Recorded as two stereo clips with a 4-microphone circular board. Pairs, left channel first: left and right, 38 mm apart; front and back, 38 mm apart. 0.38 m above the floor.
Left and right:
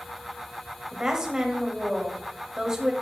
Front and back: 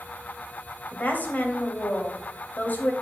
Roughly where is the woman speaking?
Ahead.